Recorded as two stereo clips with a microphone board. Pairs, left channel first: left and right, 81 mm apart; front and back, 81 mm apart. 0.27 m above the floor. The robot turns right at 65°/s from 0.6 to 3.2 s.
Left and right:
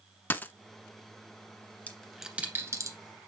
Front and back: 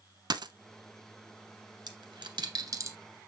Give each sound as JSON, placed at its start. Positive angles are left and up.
{"t": 0.3, "sound": "a dropped coin", "azimuth_deg": 155, "distance_m": 0.5}
{"t": 1.9, "sound": "a dropped coin", "azimuth_deg": 160, "distance_m": 1.3}